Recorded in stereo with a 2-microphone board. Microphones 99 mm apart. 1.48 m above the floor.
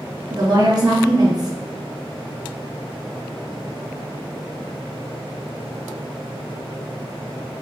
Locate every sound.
0.3 s a woman speaking: 40° right (ahead or behind), 1.5 m